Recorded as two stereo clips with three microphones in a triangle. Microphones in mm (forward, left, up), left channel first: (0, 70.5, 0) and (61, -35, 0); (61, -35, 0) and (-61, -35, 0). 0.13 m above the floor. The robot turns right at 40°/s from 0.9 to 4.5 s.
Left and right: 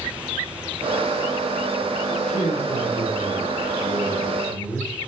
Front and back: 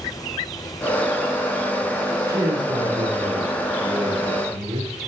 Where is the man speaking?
115° left, 4.5 m; by 5.0 s 155° right, 4.5 m.